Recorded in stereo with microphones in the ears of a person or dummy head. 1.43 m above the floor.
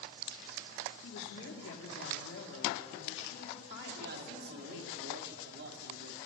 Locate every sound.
1.0 s a woman speaking: 70° left (ahead or behind), 3.5 m
4.0 s a man speaking: 65° right (ahead or behind), 2.5 m